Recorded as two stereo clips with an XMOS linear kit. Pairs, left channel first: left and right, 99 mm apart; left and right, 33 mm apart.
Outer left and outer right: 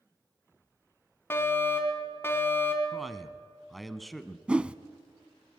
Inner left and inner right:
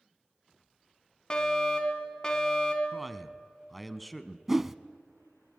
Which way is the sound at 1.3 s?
25° left (ahead or behind).